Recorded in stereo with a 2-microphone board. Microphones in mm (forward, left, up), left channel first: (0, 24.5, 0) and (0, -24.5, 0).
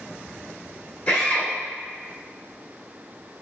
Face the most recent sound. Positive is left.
turn(degrees=40)  # may be behind; listen again after turning